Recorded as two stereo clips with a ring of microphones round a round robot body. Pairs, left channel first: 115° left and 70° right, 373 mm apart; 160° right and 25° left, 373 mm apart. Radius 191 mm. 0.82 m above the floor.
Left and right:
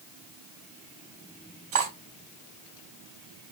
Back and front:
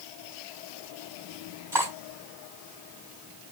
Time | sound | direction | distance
1.7 | cutlery clinking | 60° right | 4 m